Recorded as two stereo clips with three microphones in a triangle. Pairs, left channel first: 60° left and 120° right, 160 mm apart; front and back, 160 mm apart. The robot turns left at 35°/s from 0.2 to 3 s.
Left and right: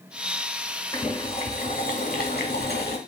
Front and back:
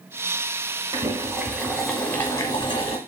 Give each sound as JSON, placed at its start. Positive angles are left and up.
{"t": 0.9, "sound": "boiling", "azimuth_deg": 125, "distance_m": 1.0}